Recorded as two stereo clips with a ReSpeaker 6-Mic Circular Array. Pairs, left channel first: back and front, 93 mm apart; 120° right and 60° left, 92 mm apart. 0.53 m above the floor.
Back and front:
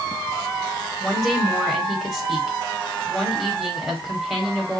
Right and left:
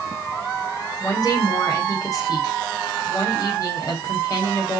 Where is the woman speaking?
90° right, 1.8 m.